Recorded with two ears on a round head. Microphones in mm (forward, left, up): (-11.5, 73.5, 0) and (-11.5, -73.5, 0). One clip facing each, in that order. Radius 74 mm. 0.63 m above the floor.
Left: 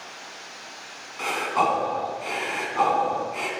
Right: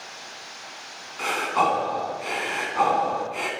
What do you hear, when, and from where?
1.2 s breathing: centre (ahead or behind), 3 m